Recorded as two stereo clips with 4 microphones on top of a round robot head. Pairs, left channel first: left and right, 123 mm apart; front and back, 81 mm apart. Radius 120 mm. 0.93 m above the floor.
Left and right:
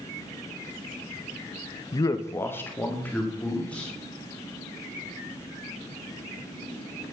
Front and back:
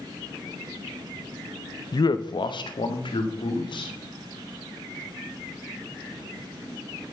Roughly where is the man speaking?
Ahead left.